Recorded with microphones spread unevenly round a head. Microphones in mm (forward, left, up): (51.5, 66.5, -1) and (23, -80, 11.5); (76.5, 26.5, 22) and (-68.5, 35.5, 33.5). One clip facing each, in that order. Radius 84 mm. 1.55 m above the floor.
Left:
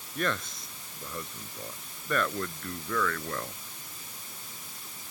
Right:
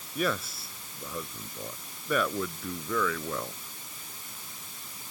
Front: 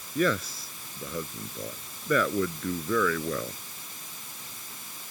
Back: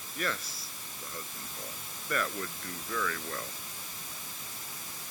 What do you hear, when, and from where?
0.1 s a man speaking: 20° right